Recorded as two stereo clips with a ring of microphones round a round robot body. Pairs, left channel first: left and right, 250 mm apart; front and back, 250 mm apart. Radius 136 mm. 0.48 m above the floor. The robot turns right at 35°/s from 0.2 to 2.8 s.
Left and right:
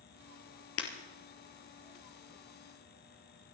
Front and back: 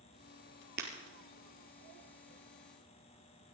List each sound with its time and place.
0.8 s breaking glass: 120° left, 2.5 m; by 0.9 s 125° left, 2.5 m